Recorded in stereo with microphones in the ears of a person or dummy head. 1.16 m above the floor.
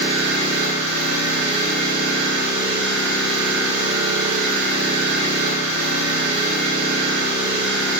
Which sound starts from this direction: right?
An engine running, at 0.0 s.